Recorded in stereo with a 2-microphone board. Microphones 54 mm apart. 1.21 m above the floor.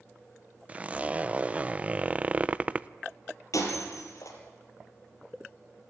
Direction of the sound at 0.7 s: 25° right (ahead or behind).